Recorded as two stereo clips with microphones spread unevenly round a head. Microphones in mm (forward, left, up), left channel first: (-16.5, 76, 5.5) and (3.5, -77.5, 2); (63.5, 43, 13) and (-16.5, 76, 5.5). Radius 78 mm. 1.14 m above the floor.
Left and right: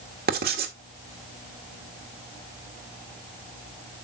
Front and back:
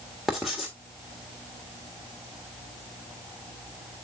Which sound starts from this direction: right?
Writing, at 0.3 s.